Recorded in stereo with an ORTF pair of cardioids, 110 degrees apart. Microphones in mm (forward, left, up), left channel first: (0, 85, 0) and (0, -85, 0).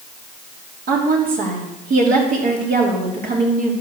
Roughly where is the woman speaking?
Ahead right.